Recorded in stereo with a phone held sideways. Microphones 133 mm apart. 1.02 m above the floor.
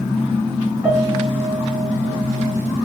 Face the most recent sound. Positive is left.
turn(degrees=-10)  # may be behind; listen again after turning